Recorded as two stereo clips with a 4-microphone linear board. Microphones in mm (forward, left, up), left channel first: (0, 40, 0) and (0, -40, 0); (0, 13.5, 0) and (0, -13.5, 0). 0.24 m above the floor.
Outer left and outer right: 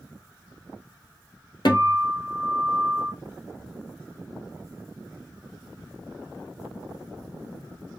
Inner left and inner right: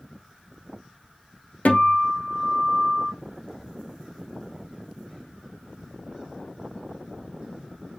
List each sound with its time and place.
1.6 s a guitar: 70° left (ahead or behind), 1.4 m